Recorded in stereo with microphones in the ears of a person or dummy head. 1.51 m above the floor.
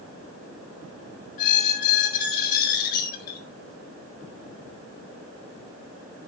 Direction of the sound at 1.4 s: 55° left (ahead or behind).